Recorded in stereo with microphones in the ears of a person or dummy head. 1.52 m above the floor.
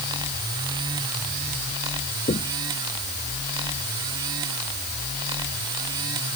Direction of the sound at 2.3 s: 30° left (ahead or behind).